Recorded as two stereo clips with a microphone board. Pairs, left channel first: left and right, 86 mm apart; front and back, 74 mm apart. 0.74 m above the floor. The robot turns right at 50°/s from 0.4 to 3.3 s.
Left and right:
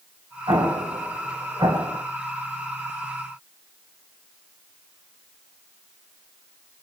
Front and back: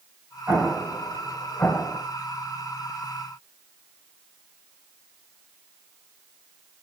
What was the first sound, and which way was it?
An explosion, 120° right.